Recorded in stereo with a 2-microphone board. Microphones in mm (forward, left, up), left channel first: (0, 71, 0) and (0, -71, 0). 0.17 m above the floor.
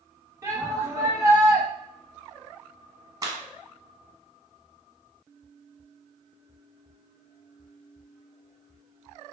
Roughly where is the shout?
Right.